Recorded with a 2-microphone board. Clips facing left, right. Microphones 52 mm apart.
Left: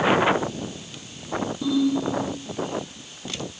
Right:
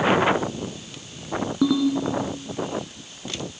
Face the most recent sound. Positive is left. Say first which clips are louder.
# right 2 dB
turn(degrees=-75)  # may be behind; listen again after turning